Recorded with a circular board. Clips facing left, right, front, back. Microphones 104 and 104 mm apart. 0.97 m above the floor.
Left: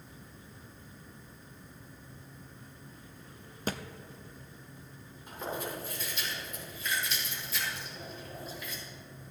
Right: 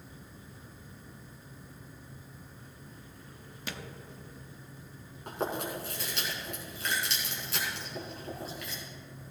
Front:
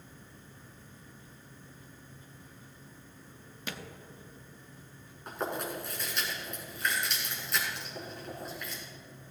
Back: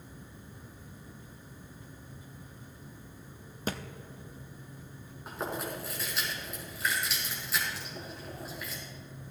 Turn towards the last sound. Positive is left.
turn(degrees=-95)